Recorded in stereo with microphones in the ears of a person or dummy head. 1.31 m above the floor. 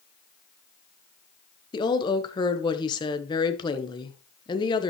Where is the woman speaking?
25° left (ahead or behind), 1.2 m.